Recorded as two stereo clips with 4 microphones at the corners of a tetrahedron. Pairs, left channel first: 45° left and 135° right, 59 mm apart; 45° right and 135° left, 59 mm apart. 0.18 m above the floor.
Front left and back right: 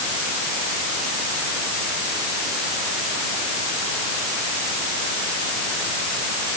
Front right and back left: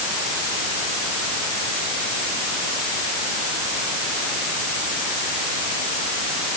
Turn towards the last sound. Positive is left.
No sound to turn to.